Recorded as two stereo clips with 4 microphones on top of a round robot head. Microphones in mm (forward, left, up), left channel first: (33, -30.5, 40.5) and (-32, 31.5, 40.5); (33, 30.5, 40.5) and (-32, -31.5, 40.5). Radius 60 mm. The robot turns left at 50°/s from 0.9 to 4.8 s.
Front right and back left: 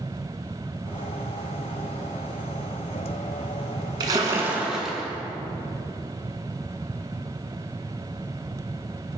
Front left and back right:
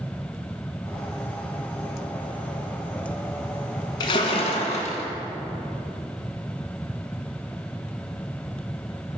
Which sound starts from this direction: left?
A splash, at 4.0 s.